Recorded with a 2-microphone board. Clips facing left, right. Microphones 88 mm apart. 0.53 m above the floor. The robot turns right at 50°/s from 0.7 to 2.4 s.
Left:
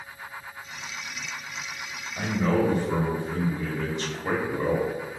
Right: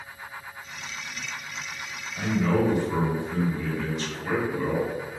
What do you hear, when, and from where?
2.2 s a man speaking: 35° left (ahead or behind), 0.8 m; by 4.9 s 40° left (ahead or behind), 0.8 m